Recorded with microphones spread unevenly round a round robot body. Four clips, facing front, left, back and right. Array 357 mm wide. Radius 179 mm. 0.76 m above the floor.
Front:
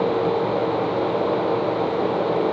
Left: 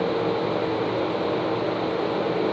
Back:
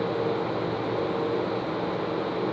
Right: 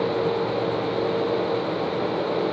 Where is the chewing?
I don't hear chewing.